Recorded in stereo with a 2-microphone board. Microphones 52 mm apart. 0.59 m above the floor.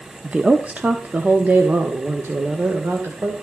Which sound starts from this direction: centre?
A woman speaking, at 0.2 s.